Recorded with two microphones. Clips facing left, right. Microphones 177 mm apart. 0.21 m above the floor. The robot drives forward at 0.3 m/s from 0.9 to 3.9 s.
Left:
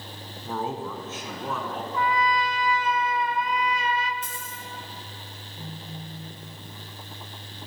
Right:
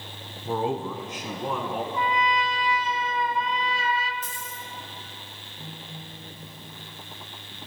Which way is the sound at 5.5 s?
25° left (ahead or behind).